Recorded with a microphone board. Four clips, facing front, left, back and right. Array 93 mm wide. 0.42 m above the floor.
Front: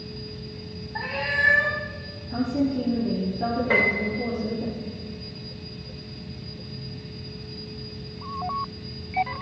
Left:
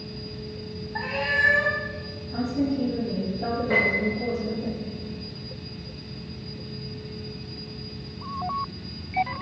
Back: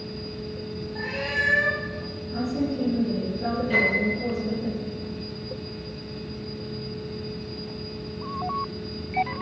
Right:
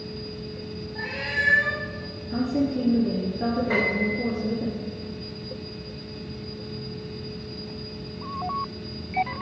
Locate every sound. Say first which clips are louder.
0.9 s a cat meowing: left 4 dB, front 3 dB; 45° left, 2.5 m
2.3 s a woman speaking: right 1 dB, front 3 dB; 60° right, 6.5 m
3.7 s a piano: left 1 dB, back 1 dB; 15° right, 6.5 m